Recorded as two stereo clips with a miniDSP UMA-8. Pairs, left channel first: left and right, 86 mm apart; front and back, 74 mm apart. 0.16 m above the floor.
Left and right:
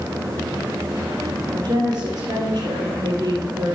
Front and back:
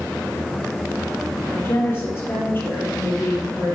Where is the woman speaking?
60° right, 3.5 m.